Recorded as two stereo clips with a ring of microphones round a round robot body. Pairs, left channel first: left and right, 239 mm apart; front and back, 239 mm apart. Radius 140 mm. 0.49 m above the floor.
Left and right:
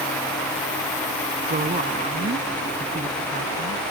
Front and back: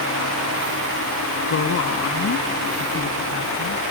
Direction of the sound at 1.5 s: 30° right.